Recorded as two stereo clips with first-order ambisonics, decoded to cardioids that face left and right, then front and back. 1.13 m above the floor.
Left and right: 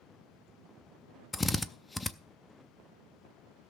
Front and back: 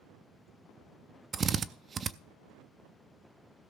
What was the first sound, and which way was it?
A drill, 155° left.